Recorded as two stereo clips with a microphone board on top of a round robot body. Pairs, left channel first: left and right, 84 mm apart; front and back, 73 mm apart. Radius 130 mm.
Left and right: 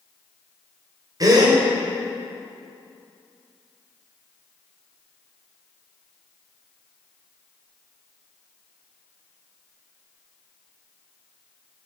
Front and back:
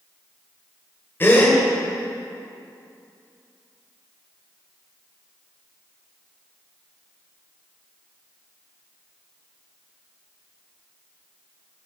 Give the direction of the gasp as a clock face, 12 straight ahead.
2 o'clock.